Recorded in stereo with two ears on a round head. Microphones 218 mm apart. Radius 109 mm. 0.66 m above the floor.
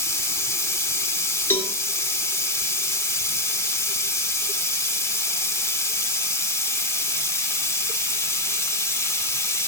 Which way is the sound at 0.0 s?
10° left (ahead or behind).